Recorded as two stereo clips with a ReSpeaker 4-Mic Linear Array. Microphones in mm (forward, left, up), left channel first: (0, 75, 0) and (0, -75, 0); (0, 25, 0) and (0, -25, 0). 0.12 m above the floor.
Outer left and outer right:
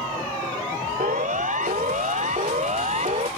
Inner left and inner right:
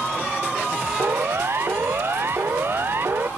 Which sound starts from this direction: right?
A siren, at 1.0 s.